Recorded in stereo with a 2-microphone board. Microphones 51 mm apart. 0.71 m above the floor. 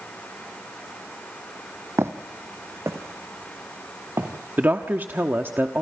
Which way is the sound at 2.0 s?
65° right (ahead or behind).